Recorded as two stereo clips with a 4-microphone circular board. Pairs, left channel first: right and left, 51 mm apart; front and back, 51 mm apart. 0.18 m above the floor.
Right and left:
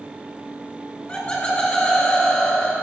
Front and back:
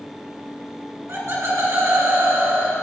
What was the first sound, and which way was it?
Laughter, 155° right.